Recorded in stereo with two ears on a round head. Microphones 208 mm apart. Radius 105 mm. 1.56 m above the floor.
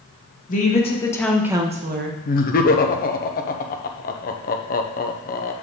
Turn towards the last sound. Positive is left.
turn(degrees=35)  # may be behind; listen again after turning